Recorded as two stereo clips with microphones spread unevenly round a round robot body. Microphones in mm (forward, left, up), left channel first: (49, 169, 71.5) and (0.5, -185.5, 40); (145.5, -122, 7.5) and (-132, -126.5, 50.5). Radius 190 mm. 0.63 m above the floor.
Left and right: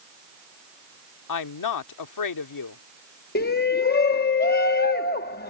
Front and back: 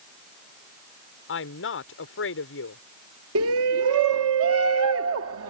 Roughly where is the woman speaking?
Ahead left.